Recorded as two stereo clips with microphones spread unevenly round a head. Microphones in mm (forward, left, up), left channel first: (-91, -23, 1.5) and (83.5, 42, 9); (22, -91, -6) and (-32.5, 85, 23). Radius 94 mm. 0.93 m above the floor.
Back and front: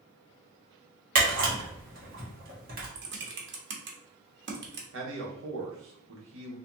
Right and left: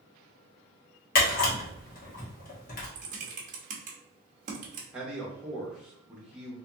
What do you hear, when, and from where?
1.1 s a camera shutter: 30° right, 1.4 m
3.0 s typing on a keyboard: 55° left, 0.9 m
4.9 s a man speaking: 15° left, 1.2 m